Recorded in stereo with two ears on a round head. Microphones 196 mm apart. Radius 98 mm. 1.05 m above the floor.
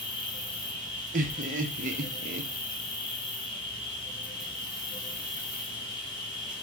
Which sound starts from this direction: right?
Laughter, at 1.1 s.